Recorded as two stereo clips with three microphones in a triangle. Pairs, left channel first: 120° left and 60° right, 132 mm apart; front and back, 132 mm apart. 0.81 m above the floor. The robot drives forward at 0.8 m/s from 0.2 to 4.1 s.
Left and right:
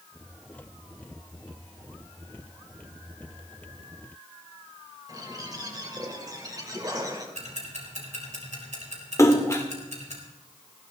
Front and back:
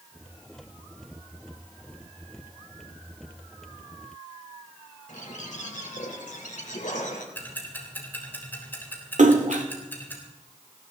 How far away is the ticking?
About 4 m.